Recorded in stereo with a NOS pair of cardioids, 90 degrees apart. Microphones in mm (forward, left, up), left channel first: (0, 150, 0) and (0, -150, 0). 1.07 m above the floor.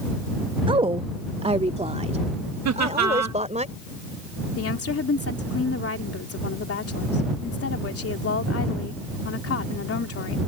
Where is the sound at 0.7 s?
15° right; by 3.6 s 20° right.